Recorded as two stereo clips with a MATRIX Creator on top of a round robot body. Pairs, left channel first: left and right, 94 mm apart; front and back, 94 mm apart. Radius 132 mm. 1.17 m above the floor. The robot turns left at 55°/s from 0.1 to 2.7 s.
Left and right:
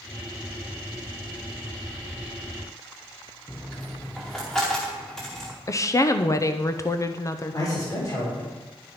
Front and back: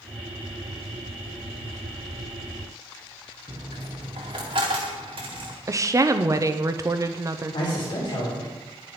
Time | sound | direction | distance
3.5 | a dropped coin | 175° left | 0.7 m
5.7 | a woman speaking | 135° left | 0.9 m
7.5 | a man speaking | 35° left | 5 m